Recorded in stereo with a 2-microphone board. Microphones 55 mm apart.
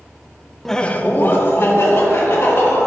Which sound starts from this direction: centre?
Laughter, at 0.7 s.